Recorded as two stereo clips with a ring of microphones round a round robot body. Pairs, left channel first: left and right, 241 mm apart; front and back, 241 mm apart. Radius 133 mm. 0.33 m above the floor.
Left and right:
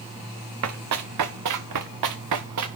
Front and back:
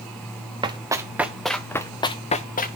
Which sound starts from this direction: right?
Running footsteps, at 0.6 s.